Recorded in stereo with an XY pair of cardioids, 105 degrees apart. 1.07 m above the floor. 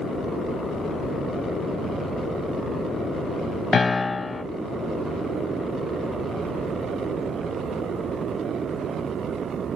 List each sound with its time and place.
3.7 s a piano: 25° left, 0.5 m